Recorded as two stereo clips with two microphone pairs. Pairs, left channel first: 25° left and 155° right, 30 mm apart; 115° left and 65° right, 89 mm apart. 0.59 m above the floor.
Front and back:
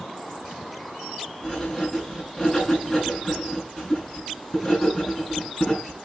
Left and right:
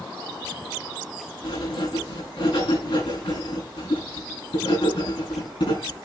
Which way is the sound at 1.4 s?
95° left.